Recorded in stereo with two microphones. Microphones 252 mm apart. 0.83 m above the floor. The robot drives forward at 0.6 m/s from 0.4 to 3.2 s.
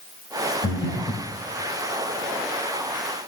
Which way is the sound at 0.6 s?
65° left (ahead or behind).